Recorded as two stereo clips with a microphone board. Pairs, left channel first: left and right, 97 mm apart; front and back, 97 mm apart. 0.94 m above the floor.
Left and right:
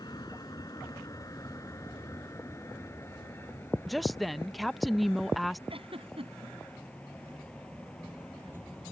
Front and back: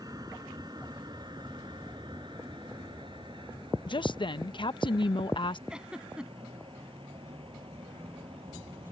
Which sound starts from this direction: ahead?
A woman speaking, at 3.9 s.